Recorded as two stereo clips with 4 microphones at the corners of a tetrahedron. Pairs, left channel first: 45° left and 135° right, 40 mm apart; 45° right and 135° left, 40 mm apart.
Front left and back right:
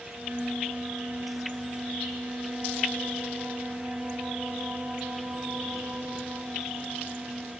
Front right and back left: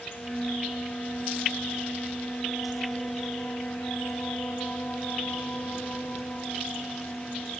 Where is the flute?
95° right, 6 m.